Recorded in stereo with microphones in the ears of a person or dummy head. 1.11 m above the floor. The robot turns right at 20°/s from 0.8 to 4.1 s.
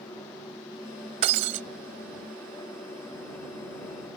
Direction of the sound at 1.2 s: 35° right (ahead or behind).